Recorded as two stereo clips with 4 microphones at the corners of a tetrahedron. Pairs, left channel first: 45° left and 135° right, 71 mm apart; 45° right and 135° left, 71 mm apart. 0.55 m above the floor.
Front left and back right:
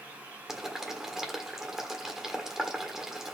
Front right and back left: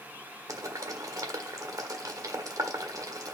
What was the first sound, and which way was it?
Boiling, 140° left.